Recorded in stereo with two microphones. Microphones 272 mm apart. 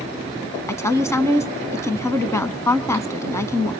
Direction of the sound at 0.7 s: 10° left (ahead or behind).